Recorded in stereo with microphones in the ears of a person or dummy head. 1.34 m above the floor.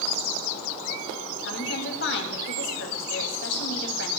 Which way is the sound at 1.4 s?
75° left (ahead or behind).